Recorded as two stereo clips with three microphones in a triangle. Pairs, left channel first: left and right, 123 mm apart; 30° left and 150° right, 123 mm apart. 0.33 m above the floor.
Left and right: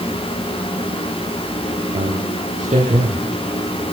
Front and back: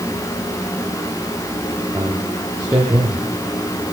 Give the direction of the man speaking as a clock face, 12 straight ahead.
3 o'clock.